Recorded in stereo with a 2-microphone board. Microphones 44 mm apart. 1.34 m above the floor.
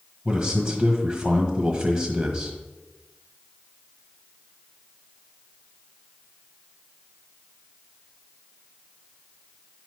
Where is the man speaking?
40° right (ahead or behind), 1.4 m.